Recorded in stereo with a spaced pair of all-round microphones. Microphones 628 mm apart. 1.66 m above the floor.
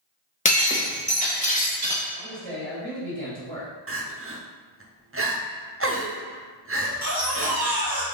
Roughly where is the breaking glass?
Centre.